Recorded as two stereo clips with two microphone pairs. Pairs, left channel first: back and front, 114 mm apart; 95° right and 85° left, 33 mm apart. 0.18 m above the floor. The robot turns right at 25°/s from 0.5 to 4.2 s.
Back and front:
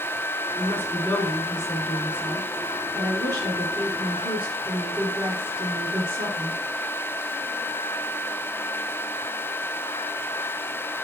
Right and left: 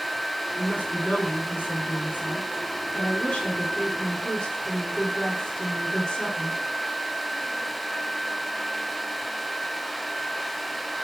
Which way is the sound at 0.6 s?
120° right.